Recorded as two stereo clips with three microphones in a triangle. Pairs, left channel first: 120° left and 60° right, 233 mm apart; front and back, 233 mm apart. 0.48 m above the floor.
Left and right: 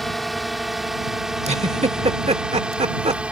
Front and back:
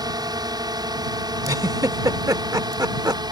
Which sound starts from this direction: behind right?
A drone, at 0.0 s.